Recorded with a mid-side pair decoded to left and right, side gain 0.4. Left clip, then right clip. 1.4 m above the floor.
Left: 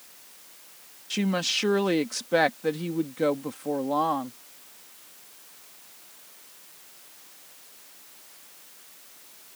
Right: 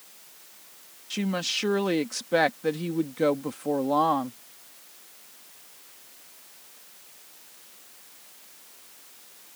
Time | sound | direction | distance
1.1 | a woman speaking | 20° left | ?